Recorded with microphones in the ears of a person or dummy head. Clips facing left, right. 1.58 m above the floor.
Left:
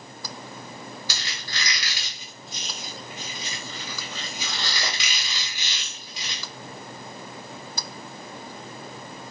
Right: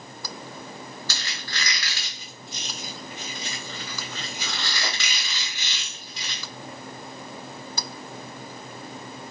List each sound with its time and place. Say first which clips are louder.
1.1 s a squeak: even; 15° left (ahead or behind), 1.0 m